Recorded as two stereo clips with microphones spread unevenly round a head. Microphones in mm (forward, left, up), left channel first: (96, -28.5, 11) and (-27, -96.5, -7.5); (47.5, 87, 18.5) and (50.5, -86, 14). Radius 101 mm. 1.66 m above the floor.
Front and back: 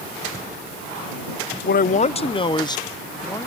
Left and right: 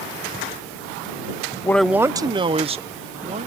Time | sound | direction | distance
1.6 | a man speaking | 15° left | ?